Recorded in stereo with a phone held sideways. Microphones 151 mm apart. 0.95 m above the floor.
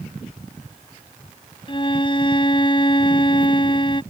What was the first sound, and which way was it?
A violin, 35° left (ahead or behind).